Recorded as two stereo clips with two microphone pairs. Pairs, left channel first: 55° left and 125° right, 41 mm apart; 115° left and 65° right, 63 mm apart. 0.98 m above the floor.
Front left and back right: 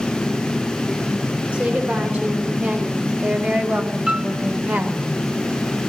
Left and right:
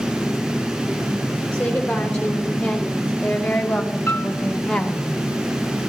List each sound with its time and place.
1.5 s a woman speaking: 170° right, 3.5 m; by 5.0 s 165° right, 1.0 m
4.1 s a piano: 170° left, 1.6 m